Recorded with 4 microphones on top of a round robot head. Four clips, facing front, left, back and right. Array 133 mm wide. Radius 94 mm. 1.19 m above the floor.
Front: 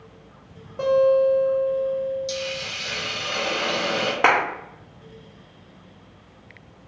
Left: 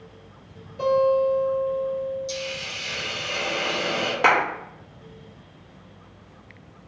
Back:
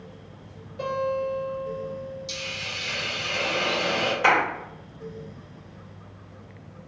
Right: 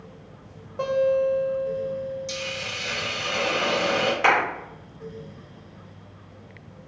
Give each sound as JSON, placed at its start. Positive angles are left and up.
{"t": 0.8, "sound": "a guitar", "azimuth_deg": -50, "distance_m": 0.6}
{"t": 2.3, "sound": "a hiss", "azimuth_deg": -60, "distance_m": 0.7}
{"t": 4.2, "sound": "a clap", "azimuth_deg": 25, "distance_m": 0.7}